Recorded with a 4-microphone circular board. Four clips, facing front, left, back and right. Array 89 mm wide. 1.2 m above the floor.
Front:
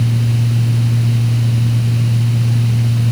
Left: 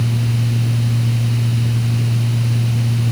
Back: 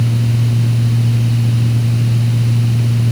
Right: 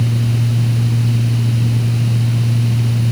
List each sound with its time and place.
Only background noise.